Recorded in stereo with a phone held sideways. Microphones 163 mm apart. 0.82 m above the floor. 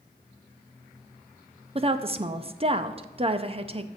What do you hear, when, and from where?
1.8 s a woman speaking: 35° right (ahead or behind), 0.5 m